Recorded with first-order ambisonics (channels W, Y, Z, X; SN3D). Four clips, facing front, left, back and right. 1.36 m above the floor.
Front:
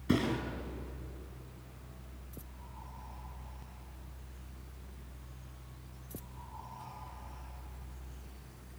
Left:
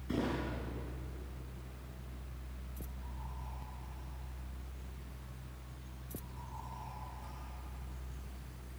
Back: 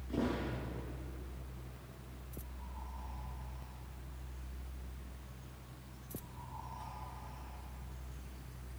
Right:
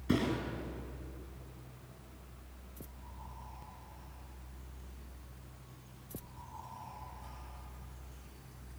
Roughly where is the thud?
Ahead right.